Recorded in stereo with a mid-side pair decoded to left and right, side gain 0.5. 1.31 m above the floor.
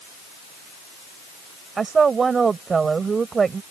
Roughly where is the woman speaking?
Ahead right.